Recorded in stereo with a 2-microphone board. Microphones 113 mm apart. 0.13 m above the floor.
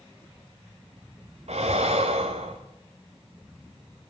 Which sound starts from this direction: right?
Breathing, at 1.5 s.